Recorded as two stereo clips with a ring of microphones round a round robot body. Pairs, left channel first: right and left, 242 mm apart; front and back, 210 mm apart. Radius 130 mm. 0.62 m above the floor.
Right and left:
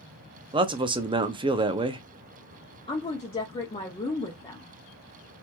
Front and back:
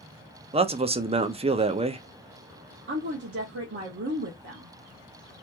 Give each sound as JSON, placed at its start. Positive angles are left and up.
{"t": 0.5, "sound": "a man speaking", "azimuth_deg": 145, "distance_m": 0.6}
{"t": 2.9, "sound": "a woman speaking", "azimuth_deg": -155, "distance_m": 1.0}